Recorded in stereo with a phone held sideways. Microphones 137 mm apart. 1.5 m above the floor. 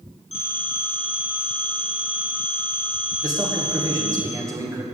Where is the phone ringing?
65° left (ahead or behind), 4 m.